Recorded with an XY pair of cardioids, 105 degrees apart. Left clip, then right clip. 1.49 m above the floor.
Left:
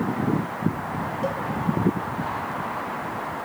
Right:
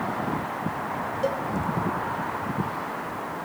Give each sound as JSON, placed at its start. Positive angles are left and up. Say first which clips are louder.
{"t": 1.2, "sound": "a cowbell", "louder": "right 2 dB", "azimuth_deg": -25, "distance_m": 2.0}